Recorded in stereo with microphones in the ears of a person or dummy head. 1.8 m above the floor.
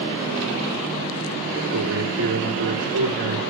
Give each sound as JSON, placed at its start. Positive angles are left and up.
{"t": 1.5, "sound": "a man speaking", "side_deg": -85, "distance_m": 4.0}